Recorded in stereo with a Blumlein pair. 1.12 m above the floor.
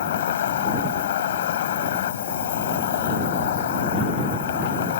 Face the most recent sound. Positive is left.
turn(degrees=60)